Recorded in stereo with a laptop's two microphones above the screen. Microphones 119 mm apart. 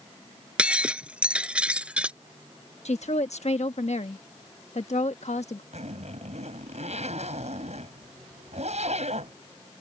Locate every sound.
0.6 s breaking glass: 10° right (ahead or behind)
2.9 s a woman speaking: 70° left (ahead or behind)
5.7 s a zipper: 70° right (ahead or behind)